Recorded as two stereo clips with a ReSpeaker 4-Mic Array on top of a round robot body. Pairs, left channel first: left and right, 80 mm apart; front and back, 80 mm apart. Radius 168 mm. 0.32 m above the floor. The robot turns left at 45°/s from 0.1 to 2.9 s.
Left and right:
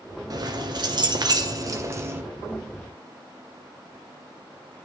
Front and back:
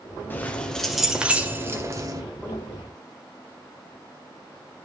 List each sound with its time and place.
0.3 s keys jangling: 60° right, 1.5 m; by 2.2 s 150° right, 1.5 m